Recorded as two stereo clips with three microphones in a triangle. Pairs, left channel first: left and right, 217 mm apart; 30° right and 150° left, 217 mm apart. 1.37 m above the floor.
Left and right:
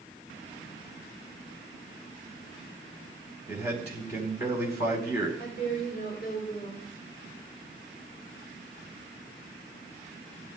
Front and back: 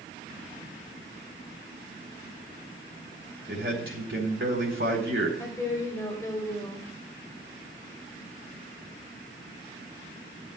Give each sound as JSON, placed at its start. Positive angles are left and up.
{"t": 3.5, "sound": "a man speaking", "azimuth_deg": 130, "distance_m": 4.5}
{"t": 5.4, "sound": "a woman speaking", "azimuth_deg": 45, "distance_m": 3.5}